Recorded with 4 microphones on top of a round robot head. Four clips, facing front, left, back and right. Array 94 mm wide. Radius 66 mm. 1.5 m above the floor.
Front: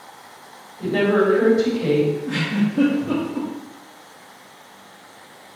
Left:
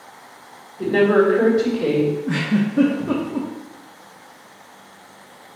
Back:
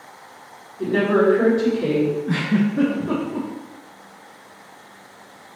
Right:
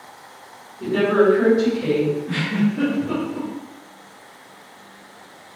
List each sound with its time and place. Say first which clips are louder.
0.8 s a woman speaking: left 2 dB, even; 105° left, 4.5 m
2.3 s a giggle: left 1 dB, back 2 dB; 130° left, 2 m